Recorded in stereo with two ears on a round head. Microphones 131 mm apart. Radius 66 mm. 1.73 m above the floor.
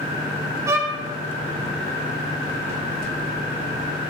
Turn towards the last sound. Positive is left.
turn(degrees=-20)  # may be behind; listen again after turning